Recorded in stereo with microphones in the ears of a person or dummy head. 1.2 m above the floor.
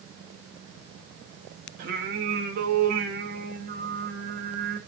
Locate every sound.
1.8 s singing: 60° right (ahead or behind), 1.0 m